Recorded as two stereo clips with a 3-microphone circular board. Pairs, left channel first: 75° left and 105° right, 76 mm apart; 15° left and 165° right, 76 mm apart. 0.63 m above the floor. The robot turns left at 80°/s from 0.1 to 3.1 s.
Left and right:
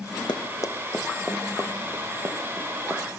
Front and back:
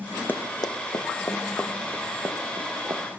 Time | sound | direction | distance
0.3 | running footsteps | 75° left | 1.7 m